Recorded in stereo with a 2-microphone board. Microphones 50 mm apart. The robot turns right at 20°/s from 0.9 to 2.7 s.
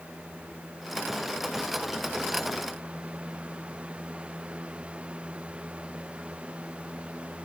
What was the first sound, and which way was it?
Only background noise.